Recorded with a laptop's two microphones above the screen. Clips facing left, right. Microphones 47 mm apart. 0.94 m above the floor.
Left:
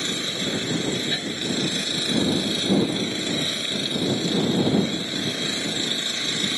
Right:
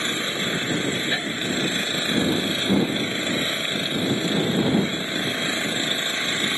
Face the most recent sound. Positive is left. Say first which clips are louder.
# right 2 dB
turn(degrees=-25)  # may be behind; listen again after turning